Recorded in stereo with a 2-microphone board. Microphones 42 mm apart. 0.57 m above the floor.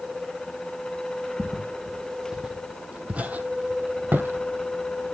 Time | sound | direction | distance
1.4 | footsteps | 10° right (ahead or behind) | 1.6 m